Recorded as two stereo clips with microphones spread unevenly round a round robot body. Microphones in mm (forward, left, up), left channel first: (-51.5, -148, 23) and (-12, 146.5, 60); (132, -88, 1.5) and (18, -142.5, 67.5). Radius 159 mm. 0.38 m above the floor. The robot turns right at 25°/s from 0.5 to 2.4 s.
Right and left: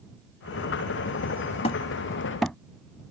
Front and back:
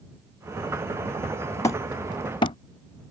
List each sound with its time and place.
1.6 s hammering: 30° right; by 2.6 s 10° right